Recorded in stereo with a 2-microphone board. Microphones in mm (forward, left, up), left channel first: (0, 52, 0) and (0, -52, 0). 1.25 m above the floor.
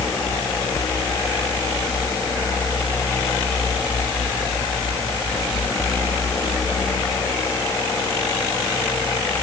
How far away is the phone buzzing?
I don't hear a phone buzzing.